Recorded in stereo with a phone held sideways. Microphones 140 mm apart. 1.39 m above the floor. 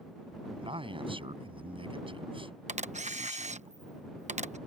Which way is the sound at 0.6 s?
40° right (ahead or behind).